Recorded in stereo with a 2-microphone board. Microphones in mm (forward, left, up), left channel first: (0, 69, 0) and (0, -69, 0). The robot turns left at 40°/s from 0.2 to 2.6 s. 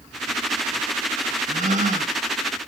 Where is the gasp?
65° right (ahead or behind), 1.2 m; by 2.1 s 60° right (ahead or behind), 1.2 m.